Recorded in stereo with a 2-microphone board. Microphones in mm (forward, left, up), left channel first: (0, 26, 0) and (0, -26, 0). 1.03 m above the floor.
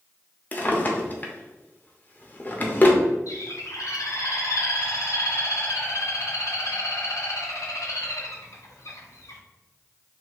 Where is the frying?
No frying in this recording.